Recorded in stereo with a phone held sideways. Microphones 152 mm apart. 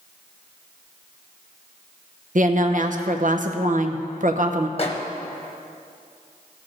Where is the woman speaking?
55° right (ahead or behind), 0.7 m.